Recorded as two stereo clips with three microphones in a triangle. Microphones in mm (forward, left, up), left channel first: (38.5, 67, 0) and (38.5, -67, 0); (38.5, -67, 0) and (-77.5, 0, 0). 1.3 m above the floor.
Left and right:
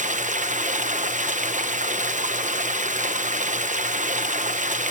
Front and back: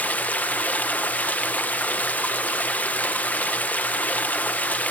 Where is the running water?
110° right, 0.8 m.